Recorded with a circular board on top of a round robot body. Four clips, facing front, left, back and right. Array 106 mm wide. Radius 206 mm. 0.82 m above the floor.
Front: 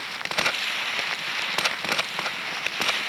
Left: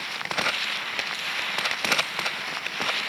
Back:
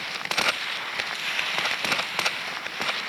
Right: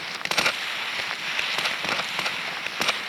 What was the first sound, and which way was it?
Only background noise.